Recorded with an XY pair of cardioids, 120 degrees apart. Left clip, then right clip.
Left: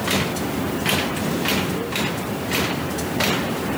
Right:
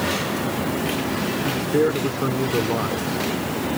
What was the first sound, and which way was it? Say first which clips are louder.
A man speaking: right 6 dB; 65° right.